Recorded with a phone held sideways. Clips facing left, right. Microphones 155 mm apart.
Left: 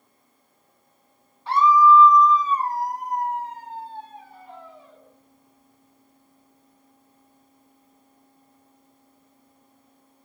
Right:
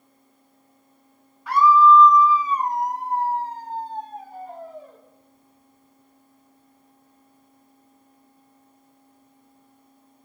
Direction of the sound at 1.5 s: 30° left (ahead or behind).